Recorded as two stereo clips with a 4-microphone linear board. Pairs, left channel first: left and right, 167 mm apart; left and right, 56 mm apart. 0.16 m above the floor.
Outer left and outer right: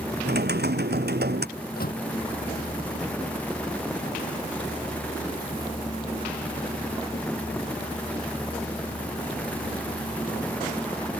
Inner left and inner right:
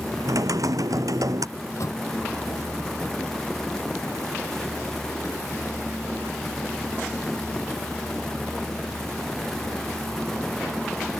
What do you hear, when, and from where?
0.2 s typing on a keyboard: 80° right
1.6 s a microwave: 65° left (ahead or behind)